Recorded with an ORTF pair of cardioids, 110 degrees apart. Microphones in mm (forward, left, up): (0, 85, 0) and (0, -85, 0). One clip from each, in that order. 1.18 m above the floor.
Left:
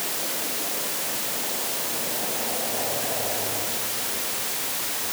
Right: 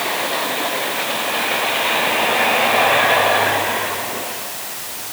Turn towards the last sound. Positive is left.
No sound to turn to.